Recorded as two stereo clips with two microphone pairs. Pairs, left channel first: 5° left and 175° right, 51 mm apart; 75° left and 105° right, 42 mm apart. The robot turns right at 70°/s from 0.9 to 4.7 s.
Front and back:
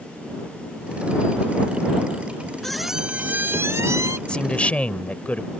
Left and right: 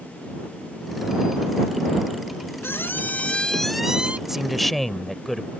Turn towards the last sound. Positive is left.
turn(degrees=-10)